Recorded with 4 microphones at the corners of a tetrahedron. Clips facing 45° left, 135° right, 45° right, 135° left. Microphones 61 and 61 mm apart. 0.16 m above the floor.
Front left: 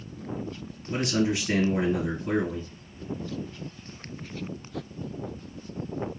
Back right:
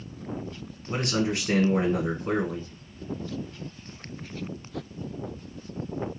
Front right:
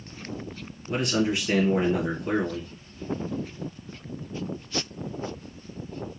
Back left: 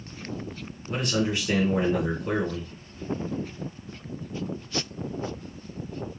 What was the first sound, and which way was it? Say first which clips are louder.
A man speaking: front left 1 dB, front right 2 dB; 140° right.